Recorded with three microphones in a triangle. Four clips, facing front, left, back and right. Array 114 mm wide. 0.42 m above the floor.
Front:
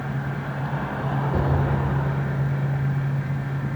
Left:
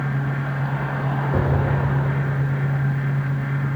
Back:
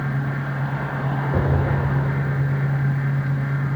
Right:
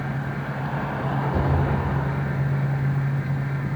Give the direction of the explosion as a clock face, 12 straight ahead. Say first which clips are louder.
Left 4 dB, back 2 dB; 8 o'clock.